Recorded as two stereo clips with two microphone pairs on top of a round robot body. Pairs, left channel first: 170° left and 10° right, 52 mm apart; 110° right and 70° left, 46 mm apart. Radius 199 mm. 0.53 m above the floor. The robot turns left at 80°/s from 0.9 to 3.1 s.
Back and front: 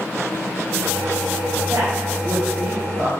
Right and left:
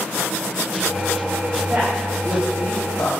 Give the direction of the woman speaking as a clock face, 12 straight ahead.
11 o'clock.